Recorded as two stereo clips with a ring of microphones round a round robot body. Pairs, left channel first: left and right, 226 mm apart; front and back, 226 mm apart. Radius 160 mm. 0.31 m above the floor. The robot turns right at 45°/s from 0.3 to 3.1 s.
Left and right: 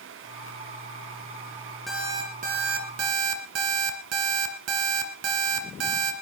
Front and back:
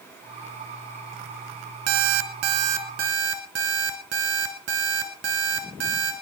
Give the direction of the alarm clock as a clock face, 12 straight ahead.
6 o'clock.